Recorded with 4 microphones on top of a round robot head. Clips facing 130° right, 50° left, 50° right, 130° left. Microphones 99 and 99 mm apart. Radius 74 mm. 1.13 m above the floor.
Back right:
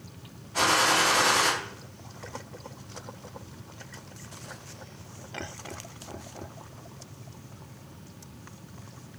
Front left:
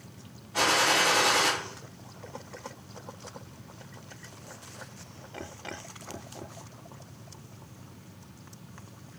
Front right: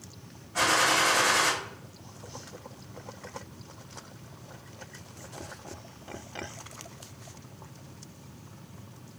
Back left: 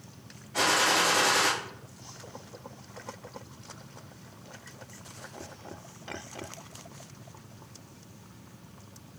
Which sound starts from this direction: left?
A gunshot, at 0.5 s.